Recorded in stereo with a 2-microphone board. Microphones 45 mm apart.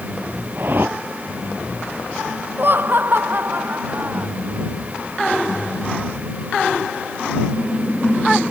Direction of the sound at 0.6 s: 50° right (ahead or behind).